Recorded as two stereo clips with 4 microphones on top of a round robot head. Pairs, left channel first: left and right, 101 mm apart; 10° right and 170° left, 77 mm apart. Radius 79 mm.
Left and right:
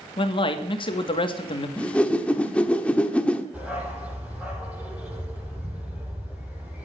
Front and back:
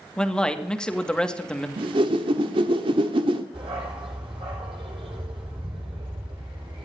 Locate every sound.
0.2 s a man speaking: 70° left, 1.6 m
1.8 s a whoosh: 170° left, 1.2 m
3.5 s a dog barking: 170° right, 8 m